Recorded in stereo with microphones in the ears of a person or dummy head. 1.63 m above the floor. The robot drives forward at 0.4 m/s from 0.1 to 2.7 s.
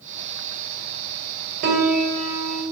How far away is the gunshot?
I don't hear a gunshot.